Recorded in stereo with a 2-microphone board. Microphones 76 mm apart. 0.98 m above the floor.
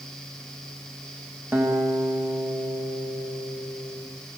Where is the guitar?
35° right (ahead or behind), 5 m.